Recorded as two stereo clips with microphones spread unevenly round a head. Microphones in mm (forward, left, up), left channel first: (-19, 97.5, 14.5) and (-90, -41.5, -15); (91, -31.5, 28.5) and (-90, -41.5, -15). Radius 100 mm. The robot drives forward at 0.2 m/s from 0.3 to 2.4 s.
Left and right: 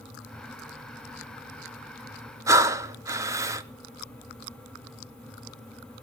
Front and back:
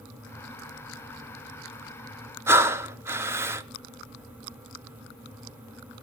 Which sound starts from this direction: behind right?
Breathing, at 2.5 s.